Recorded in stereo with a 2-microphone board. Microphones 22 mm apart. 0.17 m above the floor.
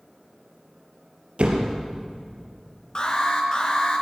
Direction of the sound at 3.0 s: 35° left (ahead or behind).